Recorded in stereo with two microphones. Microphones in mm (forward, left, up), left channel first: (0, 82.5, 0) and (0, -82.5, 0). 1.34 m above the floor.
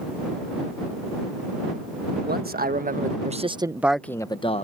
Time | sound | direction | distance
2.2 | a man speaking | 70° right (ahead or behind) | ?